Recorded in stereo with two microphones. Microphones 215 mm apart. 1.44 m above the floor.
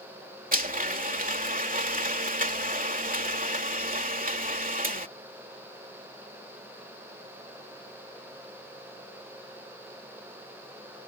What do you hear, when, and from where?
0.5 s a blender: 40° right (ahead or behind)